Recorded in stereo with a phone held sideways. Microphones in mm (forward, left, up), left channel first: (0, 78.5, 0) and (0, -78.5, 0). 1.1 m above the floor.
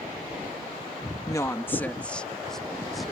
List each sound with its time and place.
1.3 s a woman speaking: 25° left (ahead or behind); by 3.1 s centre (ahead or behind)